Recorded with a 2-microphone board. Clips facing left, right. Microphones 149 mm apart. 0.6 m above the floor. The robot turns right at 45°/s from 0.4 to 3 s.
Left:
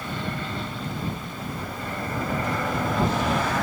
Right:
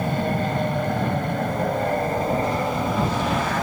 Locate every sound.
0.0 s an aircraft: 50° right (ahead or behind); by 3.6 s 10° right (ahead or behind)